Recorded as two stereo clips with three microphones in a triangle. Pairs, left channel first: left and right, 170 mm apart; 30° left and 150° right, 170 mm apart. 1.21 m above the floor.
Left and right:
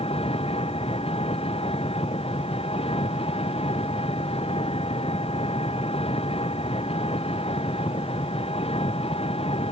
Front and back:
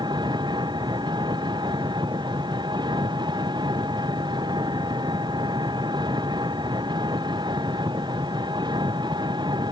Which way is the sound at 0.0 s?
145° left.